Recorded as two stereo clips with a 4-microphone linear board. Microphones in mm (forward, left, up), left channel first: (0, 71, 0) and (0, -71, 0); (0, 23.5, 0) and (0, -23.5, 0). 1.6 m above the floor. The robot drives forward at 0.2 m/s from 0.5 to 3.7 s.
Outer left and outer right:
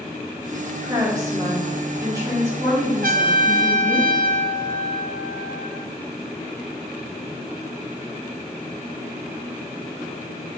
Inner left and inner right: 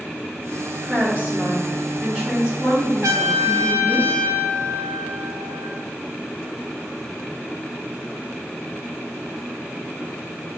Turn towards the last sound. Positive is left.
turn(degrees=-65)  # may be behind; listen again after turning